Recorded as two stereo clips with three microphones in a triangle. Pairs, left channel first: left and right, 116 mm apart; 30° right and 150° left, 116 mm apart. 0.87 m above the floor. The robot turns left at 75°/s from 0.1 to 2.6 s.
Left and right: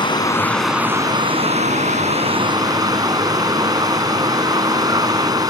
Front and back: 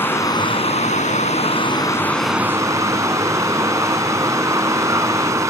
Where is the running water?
40° left; by 5.5 s 145° right.